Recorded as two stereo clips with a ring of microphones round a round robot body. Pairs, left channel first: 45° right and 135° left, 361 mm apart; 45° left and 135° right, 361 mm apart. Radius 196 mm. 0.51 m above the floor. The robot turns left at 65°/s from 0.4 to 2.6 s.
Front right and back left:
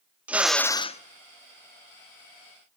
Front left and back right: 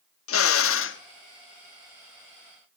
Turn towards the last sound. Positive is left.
turn(degrees=-90)